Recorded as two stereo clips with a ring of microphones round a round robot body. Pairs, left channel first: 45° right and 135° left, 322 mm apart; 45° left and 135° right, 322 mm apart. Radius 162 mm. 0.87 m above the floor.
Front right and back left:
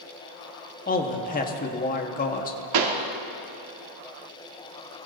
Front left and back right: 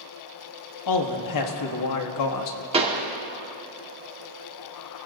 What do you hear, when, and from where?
0.9 s a man speaking: 20° left, 1.4 m
2.7 s a pop: 150° left, 1.6 m